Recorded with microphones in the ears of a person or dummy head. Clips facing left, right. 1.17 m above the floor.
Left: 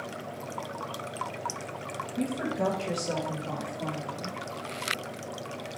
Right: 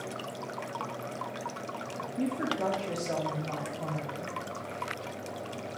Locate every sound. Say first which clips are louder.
2.2 s a woman speaking: left 1 dB; 80° left, 1.6 m; by 4.4 s 40° left (ahead or behind), 1.7 m